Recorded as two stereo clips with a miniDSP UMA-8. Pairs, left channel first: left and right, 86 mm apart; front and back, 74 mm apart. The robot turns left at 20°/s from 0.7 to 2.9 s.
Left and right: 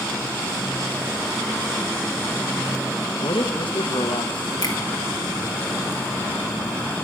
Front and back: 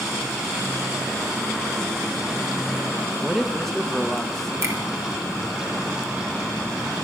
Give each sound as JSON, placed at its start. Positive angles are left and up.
{"t": 3.2, "sound": "a man speaking", "azimuth_deg": 85, "distance_m": 1.3}
{"t": 4.6, "sound": "a finger snap", "azimuth_deg": 135, "distance_m": 2.5}